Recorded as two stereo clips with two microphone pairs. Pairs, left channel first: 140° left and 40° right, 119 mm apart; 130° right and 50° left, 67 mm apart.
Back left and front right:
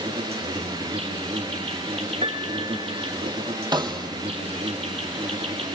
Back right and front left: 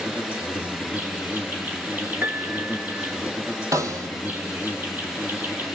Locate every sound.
0.0 s an insect: 15° right, 4.5 m
2.2 s a piano: 10° right, 2.5 m
3.7 s a snare drum: 10° left, 2.5 m